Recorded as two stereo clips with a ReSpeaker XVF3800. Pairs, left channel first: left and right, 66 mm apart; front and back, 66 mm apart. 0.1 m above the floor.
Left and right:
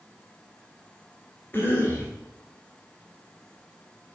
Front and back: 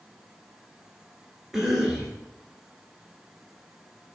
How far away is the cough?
About 1.6 m.